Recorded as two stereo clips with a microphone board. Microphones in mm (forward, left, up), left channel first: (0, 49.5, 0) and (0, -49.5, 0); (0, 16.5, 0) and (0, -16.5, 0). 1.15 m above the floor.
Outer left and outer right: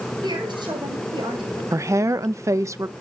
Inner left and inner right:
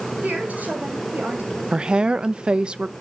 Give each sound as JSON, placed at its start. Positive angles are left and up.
{"t": 0.2, "sound": "a woman speaking", "side_deg": -50, "distance_m": 7.5}
{"t": 1.7, "sound": "a woman speaking", "side_deg": -30, "distance_m": 0.5}